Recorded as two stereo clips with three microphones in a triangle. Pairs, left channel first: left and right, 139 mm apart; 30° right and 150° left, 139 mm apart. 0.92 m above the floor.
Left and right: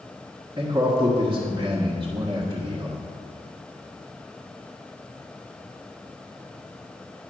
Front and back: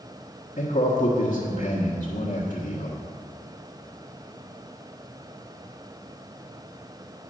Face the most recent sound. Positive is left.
turn(degrees=-35)